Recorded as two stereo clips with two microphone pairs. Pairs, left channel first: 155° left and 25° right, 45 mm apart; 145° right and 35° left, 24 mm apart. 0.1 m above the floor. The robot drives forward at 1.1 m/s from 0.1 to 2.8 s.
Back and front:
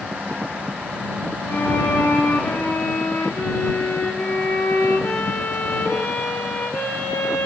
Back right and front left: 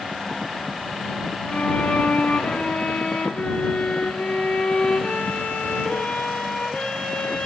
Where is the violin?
170° right, 2.0 m; by 7.5 s 175° right, 3.5 m.